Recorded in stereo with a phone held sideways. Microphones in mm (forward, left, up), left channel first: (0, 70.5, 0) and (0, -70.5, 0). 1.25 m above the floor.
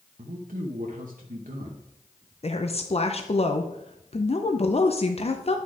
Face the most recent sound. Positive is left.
turn(degrees=45)  # may be behind; listen again after turning